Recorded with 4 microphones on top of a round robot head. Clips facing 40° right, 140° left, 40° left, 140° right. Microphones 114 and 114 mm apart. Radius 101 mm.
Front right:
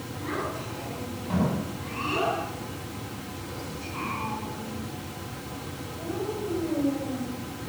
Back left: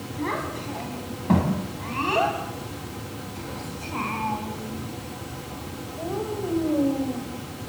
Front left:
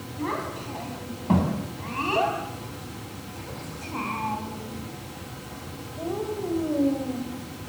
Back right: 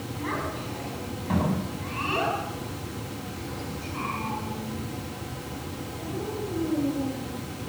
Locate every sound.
0.2 s a child speaking: 100° left, 9.5 m; by 7.3 s 75° left, 5.5 m